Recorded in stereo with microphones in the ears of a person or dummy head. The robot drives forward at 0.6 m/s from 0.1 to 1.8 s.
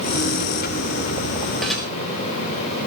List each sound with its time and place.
1.6 s dishes clattering: 5° left (ahead or behind), 5.5 m